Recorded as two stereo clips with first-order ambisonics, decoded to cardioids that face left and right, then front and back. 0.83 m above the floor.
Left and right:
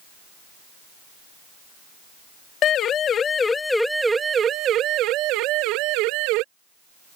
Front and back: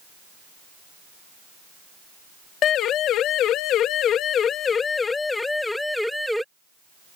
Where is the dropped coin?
I don't hear a dropped coin.